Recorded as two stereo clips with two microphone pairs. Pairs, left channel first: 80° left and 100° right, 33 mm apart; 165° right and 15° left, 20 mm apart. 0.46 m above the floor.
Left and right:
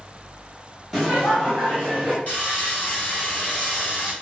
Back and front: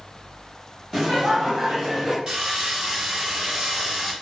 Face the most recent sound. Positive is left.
turn(degrees=60)